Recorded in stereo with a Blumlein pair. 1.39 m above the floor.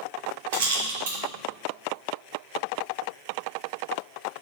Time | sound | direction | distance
0.5 | a rattle | 55° right | 2.5 m